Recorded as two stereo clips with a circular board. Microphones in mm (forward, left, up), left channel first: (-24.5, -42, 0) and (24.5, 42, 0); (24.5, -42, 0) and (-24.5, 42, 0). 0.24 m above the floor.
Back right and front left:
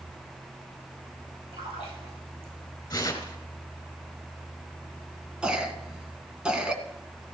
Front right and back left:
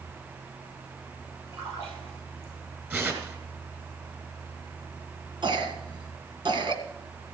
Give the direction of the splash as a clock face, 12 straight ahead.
10 o'clock.